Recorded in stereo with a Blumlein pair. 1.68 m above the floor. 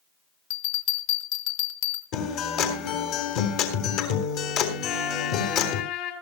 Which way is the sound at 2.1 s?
40° left.